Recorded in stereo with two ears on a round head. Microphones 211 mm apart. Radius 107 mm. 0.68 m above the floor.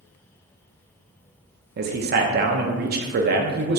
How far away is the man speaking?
About 0.7 m.